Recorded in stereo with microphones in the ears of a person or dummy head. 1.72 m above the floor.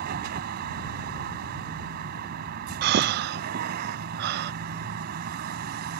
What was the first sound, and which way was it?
A vehicle, 55° right (ahead or behind).